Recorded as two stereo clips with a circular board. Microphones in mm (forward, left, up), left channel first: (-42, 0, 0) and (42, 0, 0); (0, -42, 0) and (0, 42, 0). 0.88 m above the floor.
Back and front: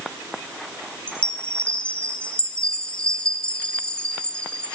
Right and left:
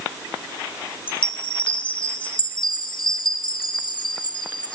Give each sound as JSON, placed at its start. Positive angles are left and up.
{"t": 1.1, "sound": "a chime", "azimuth_deg": -105, "distance_m": 3.0}